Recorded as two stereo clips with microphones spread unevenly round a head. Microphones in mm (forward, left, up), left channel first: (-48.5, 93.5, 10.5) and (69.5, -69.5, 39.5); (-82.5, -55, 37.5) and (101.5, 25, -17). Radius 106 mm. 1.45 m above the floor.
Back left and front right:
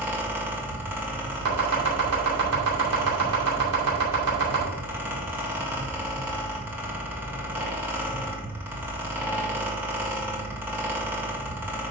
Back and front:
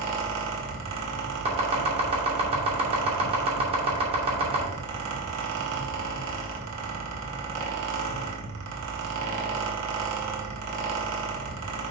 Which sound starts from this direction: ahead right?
Chopping, at 1.4 s.